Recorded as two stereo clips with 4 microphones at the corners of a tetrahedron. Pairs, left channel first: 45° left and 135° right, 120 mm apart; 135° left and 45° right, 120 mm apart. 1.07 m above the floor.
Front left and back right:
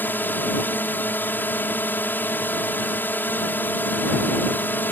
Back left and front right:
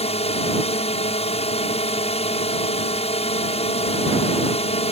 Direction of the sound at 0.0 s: 115° left.